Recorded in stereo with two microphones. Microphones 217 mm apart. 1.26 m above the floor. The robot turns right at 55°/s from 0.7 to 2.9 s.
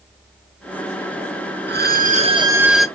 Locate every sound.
1.7 s a violin: 60° right, 0.6 m; by 2.9 s 5° left, 0.6 m